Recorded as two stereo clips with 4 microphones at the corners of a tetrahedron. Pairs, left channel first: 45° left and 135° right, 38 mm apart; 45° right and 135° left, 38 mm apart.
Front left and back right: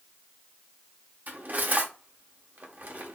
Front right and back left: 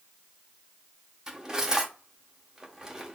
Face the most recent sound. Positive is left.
turn(degrees=-155)